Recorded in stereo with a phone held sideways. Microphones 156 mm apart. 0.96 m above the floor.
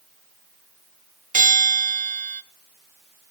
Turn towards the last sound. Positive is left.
turn(degrees=-55)  # may be behind; listen again after turning